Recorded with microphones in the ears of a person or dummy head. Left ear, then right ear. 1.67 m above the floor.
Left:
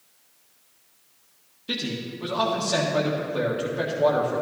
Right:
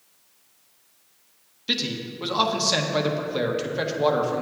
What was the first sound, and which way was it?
A man speaking, 35° right (ahead or behind).